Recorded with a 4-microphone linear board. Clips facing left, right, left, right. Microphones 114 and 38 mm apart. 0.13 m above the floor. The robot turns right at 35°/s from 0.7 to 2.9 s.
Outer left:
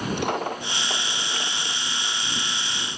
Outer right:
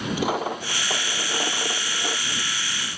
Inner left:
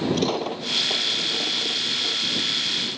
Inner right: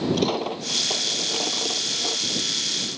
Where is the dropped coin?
175° right; by 2.4 s 115° right.